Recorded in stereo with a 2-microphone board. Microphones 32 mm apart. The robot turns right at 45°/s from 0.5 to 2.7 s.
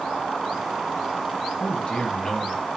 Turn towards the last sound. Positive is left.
turn(degrees=-175)